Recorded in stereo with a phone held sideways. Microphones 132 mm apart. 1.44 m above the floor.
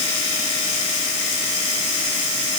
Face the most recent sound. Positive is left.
No sound to turn to.